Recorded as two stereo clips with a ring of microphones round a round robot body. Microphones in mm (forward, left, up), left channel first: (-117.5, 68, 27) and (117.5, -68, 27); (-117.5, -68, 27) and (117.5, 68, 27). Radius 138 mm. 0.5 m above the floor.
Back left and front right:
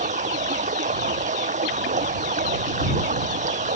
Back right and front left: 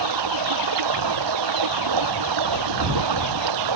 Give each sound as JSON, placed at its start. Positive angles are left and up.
{"t": 0.0, "sound": "running water", "azimuth_deg": 35}